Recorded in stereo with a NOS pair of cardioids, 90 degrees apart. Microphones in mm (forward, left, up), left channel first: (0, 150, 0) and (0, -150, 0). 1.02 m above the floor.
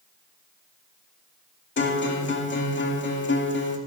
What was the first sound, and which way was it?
A guitar, 40° left.